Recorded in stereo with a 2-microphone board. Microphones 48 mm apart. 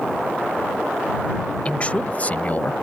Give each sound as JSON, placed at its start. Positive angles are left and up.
{"t": 1.6, "sound": "a man speaking", "side_deg": 30}